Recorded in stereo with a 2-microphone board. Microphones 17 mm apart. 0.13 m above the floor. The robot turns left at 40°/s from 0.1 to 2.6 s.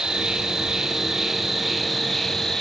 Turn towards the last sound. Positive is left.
turn(degrees=155)